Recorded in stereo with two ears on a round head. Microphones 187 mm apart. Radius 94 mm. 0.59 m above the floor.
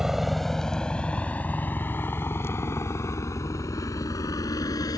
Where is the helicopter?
Centre (ahead or behind); by 5.0 s 20° left (ahead or behind).